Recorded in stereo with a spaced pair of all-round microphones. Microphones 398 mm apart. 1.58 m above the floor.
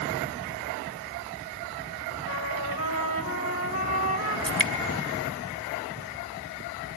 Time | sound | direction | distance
2.3 | a trumpet | 40° left (ahead or behind) | 3 m
4.5 | dripping | 55° right (ahead or behind) | 2.0 m